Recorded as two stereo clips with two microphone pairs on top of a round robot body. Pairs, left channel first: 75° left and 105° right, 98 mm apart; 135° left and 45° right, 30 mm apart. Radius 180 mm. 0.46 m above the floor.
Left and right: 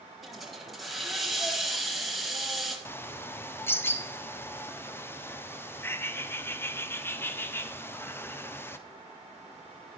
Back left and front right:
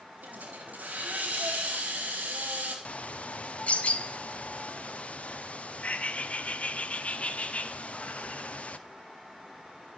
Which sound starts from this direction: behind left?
A bird, at 2.9 s.